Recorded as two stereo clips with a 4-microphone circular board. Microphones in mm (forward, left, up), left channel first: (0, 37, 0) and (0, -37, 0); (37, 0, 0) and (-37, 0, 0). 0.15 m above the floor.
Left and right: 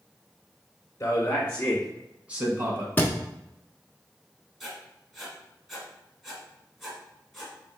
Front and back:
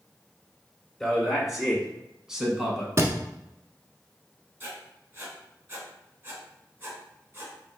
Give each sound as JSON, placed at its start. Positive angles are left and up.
{"t": 1.0, "sound": "a man speaking", "azimuth_deg": 90, "distance_m": 1.2}
{"t": 3.0, "sound": "a thud", "azimuth_deg": 145, "distance_m": 0.6}
{"t": 4.6, "sound": "writing", "azimuth_deg": -175, "distance_m": 1.4}